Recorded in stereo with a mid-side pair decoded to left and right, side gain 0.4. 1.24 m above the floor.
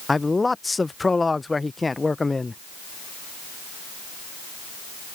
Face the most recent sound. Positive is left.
turn(degrees=20)